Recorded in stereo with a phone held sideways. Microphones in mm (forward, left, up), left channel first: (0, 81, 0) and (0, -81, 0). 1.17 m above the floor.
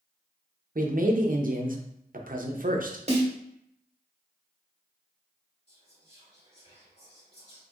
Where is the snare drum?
45° right (ahead or behind), 1.2 m.